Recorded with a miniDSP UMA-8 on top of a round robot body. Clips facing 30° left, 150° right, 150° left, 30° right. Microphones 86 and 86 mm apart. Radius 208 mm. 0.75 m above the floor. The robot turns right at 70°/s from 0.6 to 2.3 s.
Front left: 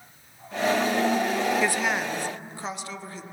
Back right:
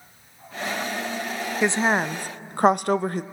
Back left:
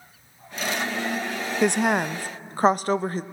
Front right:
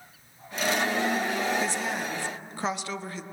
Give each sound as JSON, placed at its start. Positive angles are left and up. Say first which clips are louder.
{"t": 1.6, "sound": "a woman speaking", "louder": "back right 4 dB, back left 8 dB", "azimuth_deg": 140, "distance_m": 0.9}